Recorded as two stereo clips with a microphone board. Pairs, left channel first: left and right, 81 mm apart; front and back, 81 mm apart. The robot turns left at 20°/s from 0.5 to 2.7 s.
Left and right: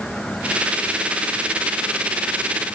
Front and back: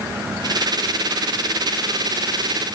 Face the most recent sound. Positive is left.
No sound to turn to.